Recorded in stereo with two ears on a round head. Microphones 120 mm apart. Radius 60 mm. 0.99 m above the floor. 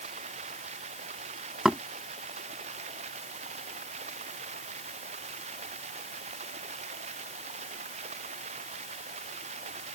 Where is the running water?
50° right (ahead or behind).